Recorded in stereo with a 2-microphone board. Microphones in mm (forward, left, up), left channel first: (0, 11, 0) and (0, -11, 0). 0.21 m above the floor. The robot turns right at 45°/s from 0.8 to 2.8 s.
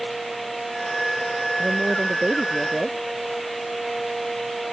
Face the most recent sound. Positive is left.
turn(degrees=-20)